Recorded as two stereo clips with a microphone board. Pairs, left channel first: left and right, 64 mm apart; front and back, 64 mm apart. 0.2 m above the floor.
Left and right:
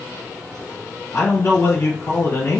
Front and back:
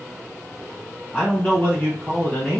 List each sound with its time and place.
1.1 s a man speaking: 80° left, 1.4 m